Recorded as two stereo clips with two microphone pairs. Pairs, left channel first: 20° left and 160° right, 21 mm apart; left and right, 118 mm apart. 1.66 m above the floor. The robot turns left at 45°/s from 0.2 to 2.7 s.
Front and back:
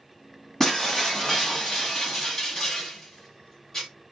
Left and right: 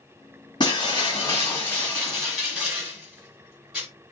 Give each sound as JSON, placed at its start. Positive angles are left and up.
{"t": 0.6, "sound": "breaking glass", "azimuth_deg": 80, "distance_m": 1.9}